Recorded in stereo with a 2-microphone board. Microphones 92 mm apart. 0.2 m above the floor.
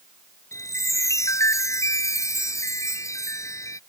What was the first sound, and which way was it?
A chime, 35° left (ahead or behind).